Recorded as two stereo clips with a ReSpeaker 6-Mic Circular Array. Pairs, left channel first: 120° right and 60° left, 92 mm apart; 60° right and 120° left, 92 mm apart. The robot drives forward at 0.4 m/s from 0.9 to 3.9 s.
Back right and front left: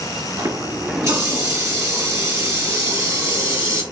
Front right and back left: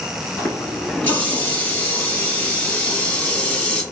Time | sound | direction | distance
0.4 | a running tap | 5° left | 2.0 m